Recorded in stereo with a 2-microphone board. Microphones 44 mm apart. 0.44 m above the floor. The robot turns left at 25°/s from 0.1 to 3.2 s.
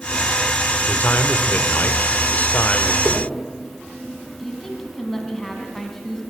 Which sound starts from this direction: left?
A man speaking, at 0.9 s.